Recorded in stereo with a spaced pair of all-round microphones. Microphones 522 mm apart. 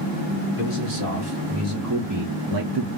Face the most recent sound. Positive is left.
turn(degrees=-55)  # may be behind; listen again after turning